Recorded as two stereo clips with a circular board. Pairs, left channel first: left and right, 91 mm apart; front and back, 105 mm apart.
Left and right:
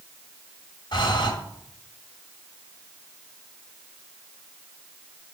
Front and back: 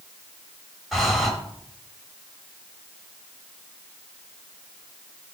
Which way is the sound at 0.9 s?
95° left.